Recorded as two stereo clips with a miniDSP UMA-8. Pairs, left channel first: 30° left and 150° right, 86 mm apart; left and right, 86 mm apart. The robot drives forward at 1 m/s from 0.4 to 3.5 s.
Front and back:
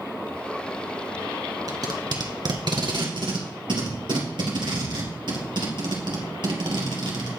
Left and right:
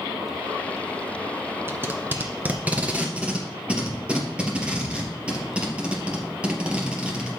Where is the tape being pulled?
140° right, 1.4 m; by 7.3 s 165° right, 3 m.